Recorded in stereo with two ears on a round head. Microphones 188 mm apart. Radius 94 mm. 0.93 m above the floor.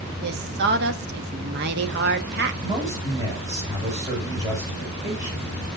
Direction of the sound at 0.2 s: 50° right (ahead or behind).